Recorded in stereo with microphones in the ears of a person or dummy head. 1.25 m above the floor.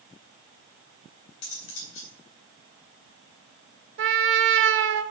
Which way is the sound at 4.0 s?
60° right (ahead or behind).